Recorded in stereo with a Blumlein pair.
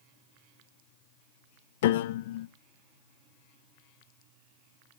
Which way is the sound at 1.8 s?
55° left.